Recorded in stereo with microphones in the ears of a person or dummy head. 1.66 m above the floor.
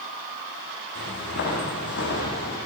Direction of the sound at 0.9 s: 70° left (ahead or behind).